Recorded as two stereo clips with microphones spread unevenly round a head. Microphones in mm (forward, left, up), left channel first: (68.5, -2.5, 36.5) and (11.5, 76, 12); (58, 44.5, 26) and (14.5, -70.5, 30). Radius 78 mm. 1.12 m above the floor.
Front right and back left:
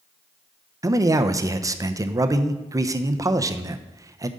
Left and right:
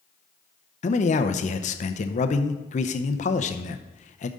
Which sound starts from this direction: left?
A man speaking, at 0.8 s.